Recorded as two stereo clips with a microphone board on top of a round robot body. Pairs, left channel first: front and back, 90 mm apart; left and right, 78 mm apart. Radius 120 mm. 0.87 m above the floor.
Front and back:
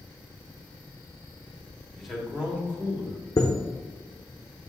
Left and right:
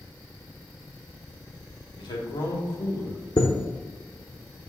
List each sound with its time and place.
2.0 s a man speaking: 90° left, 1.6 m; by 3.3 s 130° left, 2.5 m
3.4 s a chime: 55° left, 0.6 m